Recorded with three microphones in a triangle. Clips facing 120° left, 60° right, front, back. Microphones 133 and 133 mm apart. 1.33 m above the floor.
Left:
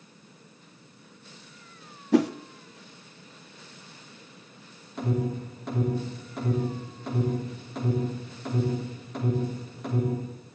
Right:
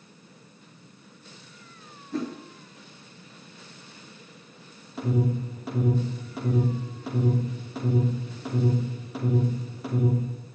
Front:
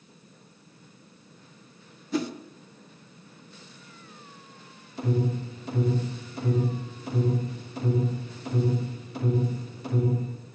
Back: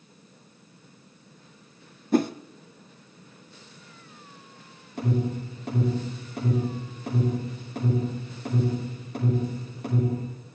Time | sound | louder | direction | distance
2.1 | a whoosh | left 9 dB, back 6 dB | 140° left | 0.6 m
5.0 | an alarm | right 2 dB, even | 145° right | 6 m